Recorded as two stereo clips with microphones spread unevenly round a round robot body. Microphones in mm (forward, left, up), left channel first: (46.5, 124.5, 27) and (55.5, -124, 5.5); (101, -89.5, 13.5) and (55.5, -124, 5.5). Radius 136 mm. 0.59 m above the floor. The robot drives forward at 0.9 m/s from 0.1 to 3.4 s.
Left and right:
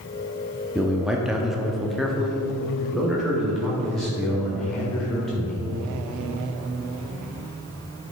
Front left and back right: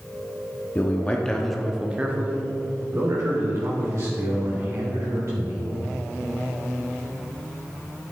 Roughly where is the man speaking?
Ahead.